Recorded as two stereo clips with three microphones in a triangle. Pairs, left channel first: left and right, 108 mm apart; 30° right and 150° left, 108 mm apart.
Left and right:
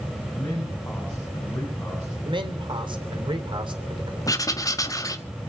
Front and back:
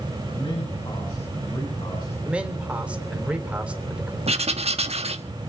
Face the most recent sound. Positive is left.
turn(degrees=145)